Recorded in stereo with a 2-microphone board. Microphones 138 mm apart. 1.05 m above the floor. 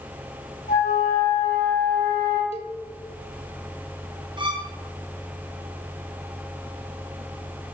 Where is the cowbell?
50° left (ahead or behind), 0.6 m.